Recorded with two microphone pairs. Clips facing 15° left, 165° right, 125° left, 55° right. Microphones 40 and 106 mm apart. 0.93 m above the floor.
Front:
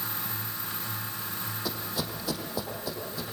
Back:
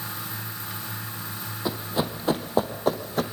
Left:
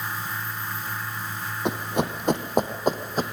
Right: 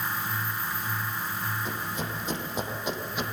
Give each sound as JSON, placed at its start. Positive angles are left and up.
{"t": 1.6, "sound": "running footsteps", "azimuth_deg": 130, "distance_m": 2.5}